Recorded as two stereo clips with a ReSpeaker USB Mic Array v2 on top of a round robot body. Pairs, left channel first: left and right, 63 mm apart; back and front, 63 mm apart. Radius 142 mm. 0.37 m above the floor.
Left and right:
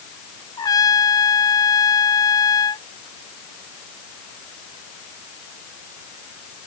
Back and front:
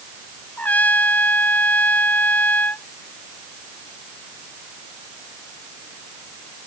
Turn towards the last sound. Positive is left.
turn(degrees=115)